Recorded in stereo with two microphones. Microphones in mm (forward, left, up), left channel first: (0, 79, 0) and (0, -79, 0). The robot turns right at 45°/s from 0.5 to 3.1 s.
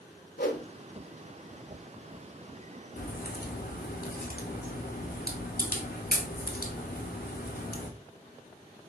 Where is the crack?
70° left (ahead or behind), 0.9 m; by 7.9 s 80° left, 0.9 m.